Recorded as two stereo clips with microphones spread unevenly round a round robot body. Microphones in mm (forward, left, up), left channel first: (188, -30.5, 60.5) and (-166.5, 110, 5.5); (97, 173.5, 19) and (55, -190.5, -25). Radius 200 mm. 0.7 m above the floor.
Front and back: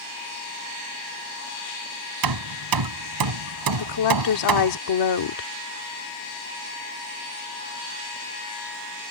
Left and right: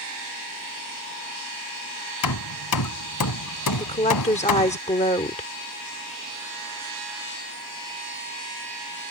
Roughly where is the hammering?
Behind left.